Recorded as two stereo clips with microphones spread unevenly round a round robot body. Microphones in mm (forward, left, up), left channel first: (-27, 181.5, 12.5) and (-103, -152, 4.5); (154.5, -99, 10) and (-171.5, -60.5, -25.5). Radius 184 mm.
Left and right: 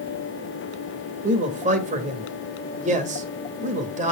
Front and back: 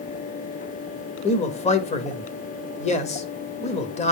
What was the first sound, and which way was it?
A man speaking, 65° right.